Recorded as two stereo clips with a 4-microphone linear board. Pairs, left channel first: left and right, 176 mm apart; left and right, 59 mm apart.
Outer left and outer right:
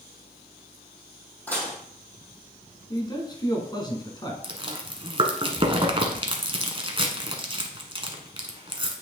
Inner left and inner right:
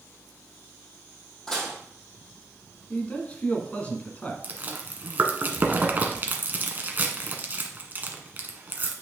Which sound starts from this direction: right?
Chewing, at 4.4 s.